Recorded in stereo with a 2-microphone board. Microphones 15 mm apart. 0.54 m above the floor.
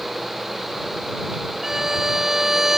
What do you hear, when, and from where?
1.6 s a violin: 30° right (ahead or behind)